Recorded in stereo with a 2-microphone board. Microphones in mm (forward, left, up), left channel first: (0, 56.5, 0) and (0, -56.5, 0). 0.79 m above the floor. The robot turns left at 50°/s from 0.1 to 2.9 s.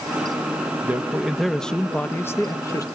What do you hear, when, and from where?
0.8 s a man speaking: 150° right, 0.9 m; by 2.9 s 110° left, 0.9 m